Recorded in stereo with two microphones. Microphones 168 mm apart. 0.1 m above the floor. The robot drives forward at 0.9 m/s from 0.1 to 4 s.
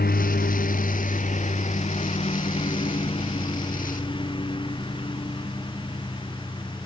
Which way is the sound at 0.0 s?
70° left (ahead or behind).